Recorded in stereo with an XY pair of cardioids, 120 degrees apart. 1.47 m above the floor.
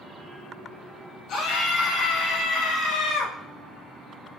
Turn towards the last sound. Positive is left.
turn(degrees=70)